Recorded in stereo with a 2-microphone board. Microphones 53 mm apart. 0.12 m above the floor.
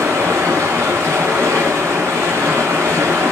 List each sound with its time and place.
0.0 s running water: 60° right (ahead or behind), 0.9 m